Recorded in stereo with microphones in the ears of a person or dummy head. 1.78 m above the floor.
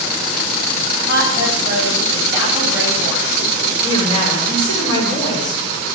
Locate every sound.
1.1 s a woman speaking: 15° right (ahead or behind), 9.5 m; by 3.7 s 10° right (ahead or behind), 11 m
3.8 s a woman speaking: 30° left (ahead or behind), 7 m